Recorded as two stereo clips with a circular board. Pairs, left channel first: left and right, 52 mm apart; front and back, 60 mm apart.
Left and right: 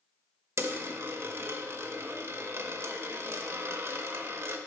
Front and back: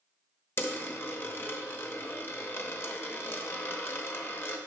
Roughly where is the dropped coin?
Ahead right.